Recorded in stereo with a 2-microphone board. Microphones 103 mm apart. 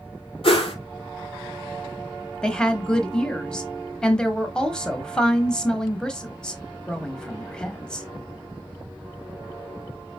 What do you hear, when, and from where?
0.4 s a whoosh: 65° left (ahead or behind), 1.2 m
2.4 s a woman speaking: 10° left (ahead or behind), 1.0 m